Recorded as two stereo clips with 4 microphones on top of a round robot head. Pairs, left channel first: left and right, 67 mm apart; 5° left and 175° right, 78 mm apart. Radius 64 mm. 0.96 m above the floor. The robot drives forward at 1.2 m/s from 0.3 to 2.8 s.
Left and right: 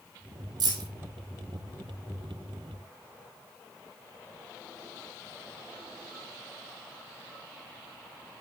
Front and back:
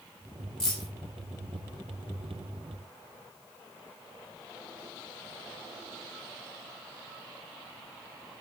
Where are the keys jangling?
80° right, 3 m; by 0.9 s 85° right, 3 m.